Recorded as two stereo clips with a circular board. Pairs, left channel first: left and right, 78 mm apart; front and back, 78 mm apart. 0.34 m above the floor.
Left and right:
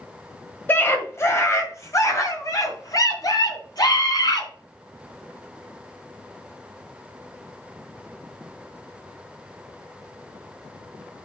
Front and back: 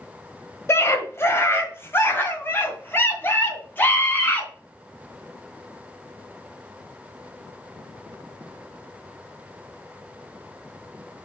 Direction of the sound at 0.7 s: 35° left.